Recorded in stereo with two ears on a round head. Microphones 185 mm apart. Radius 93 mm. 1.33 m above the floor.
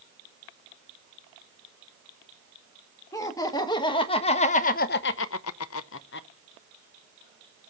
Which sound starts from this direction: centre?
Laughter, at 3.1 s.